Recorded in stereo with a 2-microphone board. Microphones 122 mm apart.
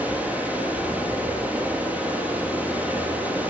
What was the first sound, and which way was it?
Running water, 10° right (ahead or behind).